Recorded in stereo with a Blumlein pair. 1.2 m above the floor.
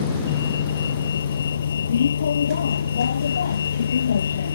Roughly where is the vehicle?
Ahead left.